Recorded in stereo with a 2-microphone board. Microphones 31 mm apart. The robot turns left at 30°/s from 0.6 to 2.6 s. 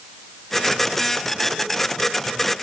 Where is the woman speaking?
I don't hear a woman speaking.